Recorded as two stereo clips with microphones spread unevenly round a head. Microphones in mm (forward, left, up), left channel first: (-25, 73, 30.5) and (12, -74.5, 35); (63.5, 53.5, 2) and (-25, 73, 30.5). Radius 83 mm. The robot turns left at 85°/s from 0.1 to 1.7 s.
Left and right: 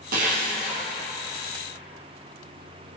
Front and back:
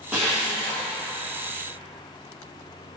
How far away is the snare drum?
I don't hear a snare drum.